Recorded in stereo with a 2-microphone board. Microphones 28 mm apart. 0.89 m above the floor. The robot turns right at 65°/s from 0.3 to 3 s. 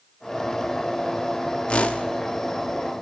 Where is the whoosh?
50° left (ahead or behind), 0.8 m; by 2.0 s 70° left (ahead or behind), 0.8 m.